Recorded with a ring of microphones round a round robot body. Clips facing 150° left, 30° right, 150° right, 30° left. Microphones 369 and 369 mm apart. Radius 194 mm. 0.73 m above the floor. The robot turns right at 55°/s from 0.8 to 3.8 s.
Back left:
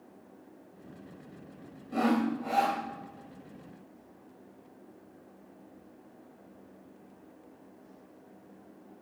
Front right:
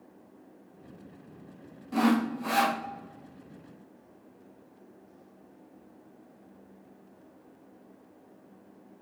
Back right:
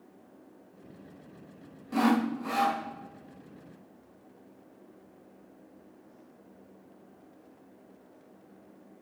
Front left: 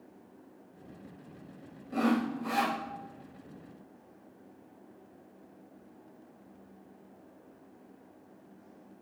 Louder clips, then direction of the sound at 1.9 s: Front right 2 dB, back right 3 dB; 90° right.